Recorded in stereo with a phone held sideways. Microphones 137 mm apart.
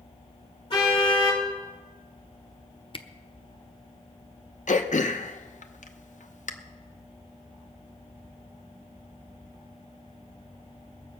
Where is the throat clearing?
70° left (ahead or behind), 0.8 m.